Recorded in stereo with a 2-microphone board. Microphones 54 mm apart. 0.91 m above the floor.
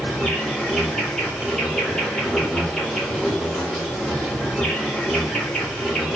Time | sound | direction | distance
0.0 | an insect | 10° left (ahead or behind) | 1.3 m